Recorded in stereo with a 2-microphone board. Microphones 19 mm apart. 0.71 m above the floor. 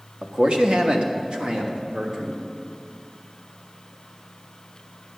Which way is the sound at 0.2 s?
50° right (ahead or behind).